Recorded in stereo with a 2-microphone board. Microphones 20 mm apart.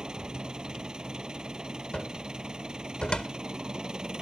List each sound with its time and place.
0.0 s an engine running: 35° right (ahead or behind)
1.9 s a cupboard door: 55° left (ahead or behind)